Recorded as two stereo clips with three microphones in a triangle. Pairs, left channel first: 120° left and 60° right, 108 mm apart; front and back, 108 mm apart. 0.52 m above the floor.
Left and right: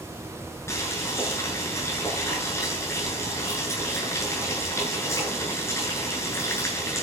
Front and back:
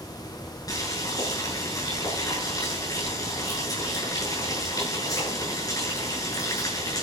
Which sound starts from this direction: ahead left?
Boiling, at 0.7 s.